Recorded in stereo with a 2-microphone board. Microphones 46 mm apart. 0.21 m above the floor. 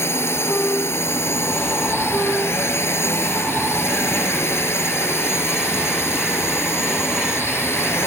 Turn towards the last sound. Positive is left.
turn(degrees=70)  # may be behind; listen again after turning